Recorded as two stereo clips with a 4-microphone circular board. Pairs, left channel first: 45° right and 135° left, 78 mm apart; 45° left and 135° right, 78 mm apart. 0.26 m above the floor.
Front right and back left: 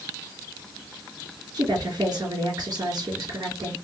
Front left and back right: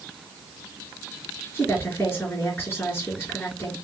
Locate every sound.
1.5 s a woman speaking: 105° left, 3.5 m